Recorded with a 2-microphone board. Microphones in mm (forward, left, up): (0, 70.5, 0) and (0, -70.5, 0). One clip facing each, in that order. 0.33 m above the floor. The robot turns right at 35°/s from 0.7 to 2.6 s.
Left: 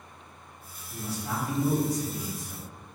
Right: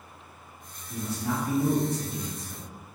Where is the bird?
No bird in this recording.